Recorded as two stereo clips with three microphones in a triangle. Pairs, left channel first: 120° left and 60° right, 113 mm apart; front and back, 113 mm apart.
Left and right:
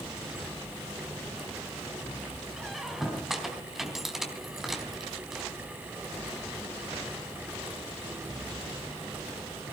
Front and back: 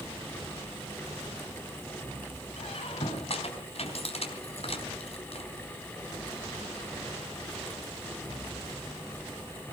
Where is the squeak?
30° left, 3.5 m.